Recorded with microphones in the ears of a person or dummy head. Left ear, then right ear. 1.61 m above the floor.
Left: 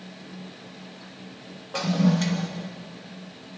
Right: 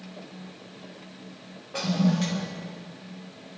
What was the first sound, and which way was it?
A toilet flushing, 15° left (ahead or behind).